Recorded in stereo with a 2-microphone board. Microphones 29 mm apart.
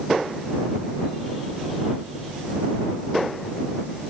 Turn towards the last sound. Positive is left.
No sound to turn to.